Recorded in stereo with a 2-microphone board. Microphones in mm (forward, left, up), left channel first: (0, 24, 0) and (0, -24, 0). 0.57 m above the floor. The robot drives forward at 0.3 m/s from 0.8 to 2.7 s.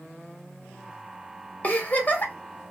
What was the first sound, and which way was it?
A giggle, 35° left (ahead or behind).